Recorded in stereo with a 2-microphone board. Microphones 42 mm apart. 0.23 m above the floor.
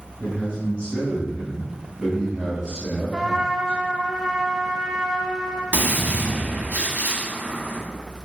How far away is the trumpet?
About 0.7 m.